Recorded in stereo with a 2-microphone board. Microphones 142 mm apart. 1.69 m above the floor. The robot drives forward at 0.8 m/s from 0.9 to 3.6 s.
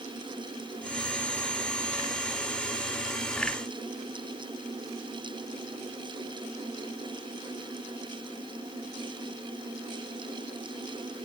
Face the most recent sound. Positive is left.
No sound to turn to.